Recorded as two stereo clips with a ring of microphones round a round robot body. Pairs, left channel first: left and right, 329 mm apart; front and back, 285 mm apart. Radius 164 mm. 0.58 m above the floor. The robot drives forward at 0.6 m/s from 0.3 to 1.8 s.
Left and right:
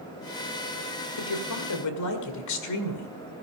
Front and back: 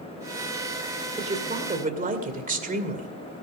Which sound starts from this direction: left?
A woman speaking, at 1.2 s.